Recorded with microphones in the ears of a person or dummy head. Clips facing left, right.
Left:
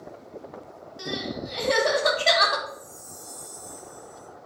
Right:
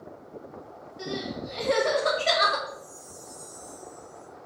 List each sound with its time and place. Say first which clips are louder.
1.0 s crying: left 1 dB; 65° left (ahead or behind), 2.5 m
2.7 s a chime: even; 75° left (ahead or behind), 1.9 m